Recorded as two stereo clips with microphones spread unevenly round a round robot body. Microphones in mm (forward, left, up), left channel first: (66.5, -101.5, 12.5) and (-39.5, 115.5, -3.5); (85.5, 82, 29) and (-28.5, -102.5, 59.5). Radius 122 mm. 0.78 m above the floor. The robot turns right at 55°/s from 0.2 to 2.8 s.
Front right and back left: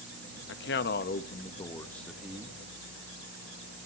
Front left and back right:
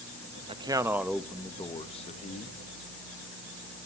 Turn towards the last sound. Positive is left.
turn(degrees=70)